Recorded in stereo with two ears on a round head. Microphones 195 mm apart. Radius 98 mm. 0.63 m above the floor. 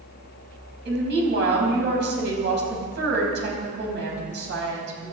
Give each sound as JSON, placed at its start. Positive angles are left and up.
{"t": 0.8, "sound": "a woman speaking", "side_deg": -55, "distance_m": 5.0}